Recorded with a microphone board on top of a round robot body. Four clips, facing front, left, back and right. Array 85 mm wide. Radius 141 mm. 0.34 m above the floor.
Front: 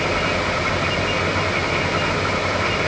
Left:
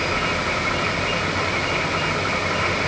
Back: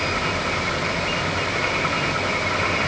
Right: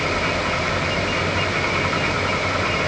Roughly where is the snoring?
I don't hear snoring.